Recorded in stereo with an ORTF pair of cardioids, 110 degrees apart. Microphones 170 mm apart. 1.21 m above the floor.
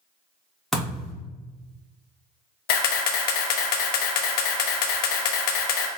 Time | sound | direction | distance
0.7 | a thud | straight ahead | 1.5 m
2.7 | a camera shutter | 70° left | 0.7 m